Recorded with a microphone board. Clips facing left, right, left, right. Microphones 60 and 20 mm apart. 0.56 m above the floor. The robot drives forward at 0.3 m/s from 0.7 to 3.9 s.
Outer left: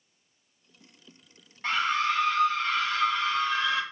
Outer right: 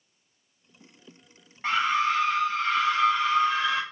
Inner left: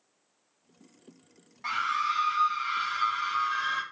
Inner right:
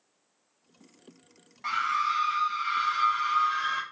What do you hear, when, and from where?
1.6 s a scream: 20° right (ahead or behind), 1.7 m; by 3.8 s 25° right (ahead or behind), 1.4 m